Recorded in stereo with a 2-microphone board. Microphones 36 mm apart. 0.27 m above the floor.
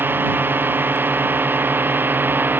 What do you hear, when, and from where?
0.0 s a drone: 70° right (ahead or behind); by 2.6 s 65° right (ahead or behind)